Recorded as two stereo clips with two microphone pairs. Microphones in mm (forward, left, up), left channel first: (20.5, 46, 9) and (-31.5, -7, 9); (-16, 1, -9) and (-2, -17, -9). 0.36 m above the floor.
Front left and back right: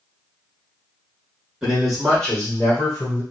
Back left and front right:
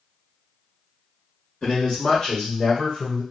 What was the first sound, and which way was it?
A man speaking, 150° left.